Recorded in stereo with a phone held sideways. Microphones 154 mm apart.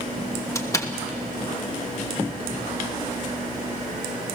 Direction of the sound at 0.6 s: 20° left (ahead or behind).